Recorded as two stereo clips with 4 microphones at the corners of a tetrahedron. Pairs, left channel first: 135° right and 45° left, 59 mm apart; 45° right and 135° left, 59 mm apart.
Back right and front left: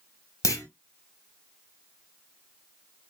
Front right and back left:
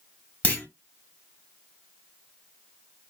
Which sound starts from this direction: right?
A clunk, at 0.4 s.